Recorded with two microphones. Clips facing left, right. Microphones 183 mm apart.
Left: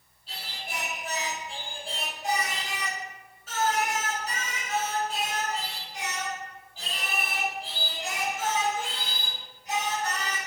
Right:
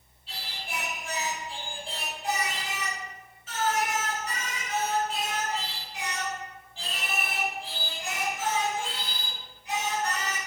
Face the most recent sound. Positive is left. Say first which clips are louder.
# even
turn(degrees=40)  # may be behind; listen again after turning